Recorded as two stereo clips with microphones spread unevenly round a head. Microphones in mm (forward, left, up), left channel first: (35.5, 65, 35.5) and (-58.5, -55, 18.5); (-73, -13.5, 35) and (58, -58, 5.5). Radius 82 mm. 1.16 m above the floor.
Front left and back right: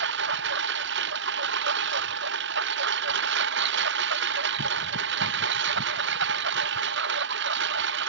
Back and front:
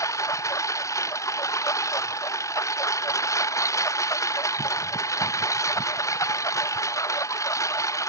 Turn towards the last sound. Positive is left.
turn(degrees=-130)